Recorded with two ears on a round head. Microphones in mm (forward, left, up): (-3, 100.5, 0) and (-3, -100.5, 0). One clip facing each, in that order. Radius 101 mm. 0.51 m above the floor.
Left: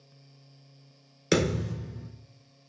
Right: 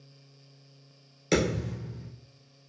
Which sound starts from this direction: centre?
A thud, at 1.3 s.